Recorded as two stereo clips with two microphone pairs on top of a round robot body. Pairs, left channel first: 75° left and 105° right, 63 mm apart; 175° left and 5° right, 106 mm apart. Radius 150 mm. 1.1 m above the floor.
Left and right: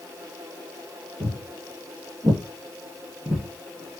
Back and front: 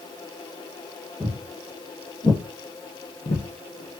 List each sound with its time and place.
1.2 s footsteps: 85° right, 1.5 m; by 4.0 s 175° right, 1.5 m